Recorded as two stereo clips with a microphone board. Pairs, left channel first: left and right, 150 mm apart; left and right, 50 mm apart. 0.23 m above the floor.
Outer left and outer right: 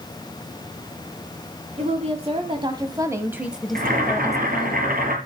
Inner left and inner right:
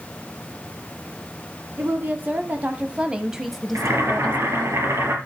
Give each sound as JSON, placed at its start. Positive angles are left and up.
{"t": 1.8, "sound": "a woman speaking", "side_deg": -50, "distance_m": 1.7}
{"t": 3.8, "sound": "boiling", "side_deg": -75, "distance_m": 4.5}